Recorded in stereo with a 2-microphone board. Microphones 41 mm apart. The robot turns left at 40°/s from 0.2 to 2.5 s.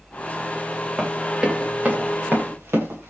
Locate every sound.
1.0 s running footsteps: 5° right (ahead or behind), 9.5 m; by 3.1 s 80° right, 8 m